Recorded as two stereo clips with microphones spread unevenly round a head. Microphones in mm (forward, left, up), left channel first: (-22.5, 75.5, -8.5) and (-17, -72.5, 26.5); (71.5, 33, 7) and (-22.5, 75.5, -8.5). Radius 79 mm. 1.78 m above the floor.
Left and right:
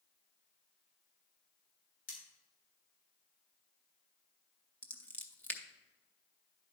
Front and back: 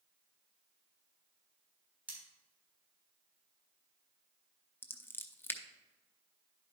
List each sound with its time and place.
2.1 s cutlery clinking: 80° left, 4 m
4.8 s scissors: 5° right, 0.7 m